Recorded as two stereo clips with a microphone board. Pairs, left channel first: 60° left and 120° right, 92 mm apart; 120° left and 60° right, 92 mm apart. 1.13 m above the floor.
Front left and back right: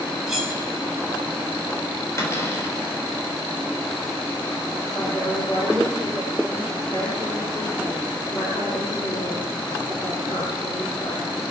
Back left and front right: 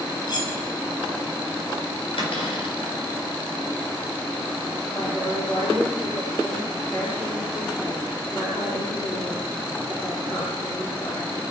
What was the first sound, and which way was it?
Cutlery clinking, 155° left.